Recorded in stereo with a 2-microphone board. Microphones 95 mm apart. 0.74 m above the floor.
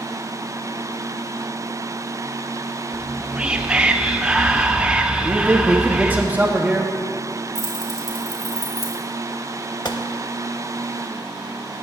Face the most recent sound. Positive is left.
turn(degrees=55)  # may be behind; listen again after turning